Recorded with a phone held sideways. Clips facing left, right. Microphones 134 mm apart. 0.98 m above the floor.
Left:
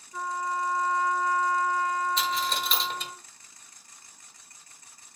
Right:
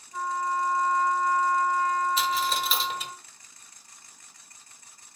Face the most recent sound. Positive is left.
turn(degrees=-5)  # may be behind; listen again after turning